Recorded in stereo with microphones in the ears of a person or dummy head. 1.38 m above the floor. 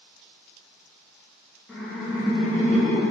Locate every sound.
1.7 s laughter: 10° left (ahead or behind), 0.5 m; by 3.0 s 50° right (ahead or behind), 0.8 m